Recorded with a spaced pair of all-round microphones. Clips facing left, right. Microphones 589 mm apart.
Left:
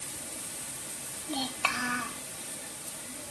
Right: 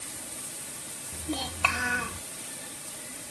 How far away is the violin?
No violin in this recording.